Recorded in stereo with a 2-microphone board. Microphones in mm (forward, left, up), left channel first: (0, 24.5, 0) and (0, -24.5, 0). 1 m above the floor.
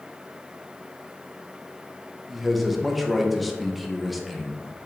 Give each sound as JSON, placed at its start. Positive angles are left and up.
{"t": 2.3, "sound": "a man speaking", "side_deg": 0, "distance_m": 0.7}